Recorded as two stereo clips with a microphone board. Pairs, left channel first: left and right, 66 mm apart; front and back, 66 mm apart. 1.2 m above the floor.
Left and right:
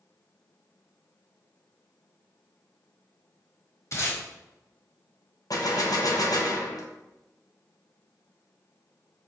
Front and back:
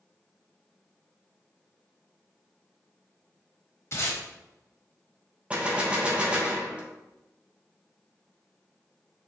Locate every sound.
3.9 s tape being pulled: 45° left, 1.3 m
5.5 s a gunshot: 110° left, 0.8 m